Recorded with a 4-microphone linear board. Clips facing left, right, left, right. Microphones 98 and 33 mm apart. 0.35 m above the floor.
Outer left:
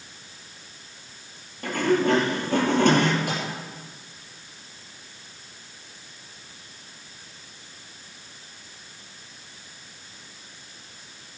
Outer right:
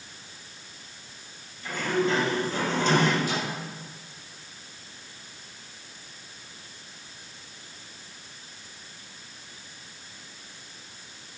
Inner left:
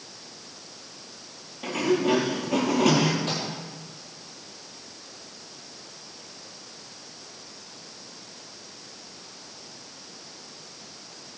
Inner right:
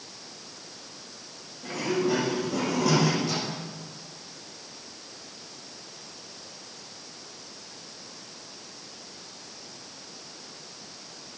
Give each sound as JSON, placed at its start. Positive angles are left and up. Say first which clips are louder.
{"t": 1.6, "sound": "a sliding door", "louder": "outer left 5 dB, inner left 4 dB", "side_deg": 65, "distance_m": 4.5}
{"t": 3.3, "sound": "a microwave", "louder": "even, even", "side_deg": 60, "distance_m": 8.5}